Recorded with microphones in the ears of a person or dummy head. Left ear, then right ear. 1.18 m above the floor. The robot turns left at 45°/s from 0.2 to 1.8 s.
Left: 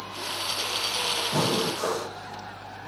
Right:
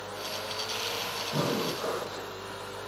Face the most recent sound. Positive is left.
turn(degrees=80)